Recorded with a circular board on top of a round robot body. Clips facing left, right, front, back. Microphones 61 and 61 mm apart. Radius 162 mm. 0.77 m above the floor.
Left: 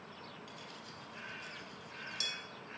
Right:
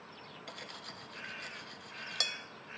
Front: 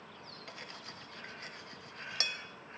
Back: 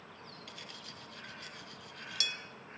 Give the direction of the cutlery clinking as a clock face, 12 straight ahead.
2 o'clock.